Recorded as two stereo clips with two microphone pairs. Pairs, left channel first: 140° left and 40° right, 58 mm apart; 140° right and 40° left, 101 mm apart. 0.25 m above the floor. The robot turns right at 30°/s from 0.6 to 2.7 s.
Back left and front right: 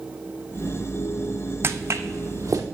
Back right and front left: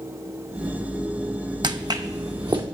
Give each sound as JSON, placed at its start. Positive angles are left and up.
{"t": 1.6, "sound": "footsteps", "azimuth_deg": 5, "distance_m": 0.5}